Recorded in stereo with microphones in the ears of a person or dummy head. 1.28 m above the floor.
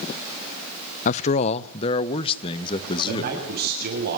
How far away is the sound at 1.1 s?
About 0.6 m.